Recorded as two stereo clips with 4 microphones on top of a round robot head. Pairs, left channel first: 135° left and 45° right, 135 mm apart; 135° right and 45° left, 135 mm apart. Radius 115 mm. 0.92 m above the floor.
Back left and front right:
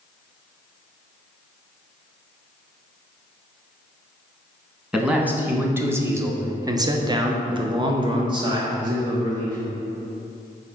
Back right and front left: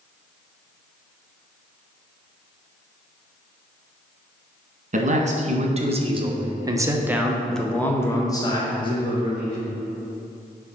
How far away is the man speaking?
About 1.8 m.